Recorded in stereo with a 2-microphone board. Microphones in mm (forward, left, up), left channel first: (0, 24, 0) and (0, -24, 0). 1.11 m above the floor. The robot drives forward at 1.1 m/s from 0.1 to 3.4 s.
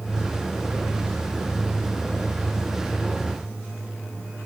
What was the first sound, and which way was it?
Only background noise.